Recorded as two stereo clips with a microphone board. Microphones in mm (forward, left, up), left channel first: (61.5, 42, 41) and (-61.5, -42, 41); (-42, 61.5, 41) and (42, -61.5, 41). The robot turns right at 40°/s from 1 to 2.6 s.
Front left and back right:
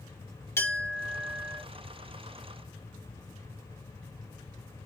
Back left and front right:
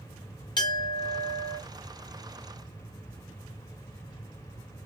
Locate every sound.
0.6 s a clink: 95° left, 0.8 m; by 1.6 s 120° left, 0.8 m